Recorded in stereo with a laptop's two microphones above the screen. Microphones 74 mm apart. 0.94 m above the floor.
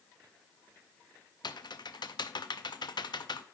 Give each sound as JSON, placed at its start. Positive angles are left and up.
{"t": 1.4, "sound": "typing on a keyboard", "side_deg": 75, "distance_m": 0.6}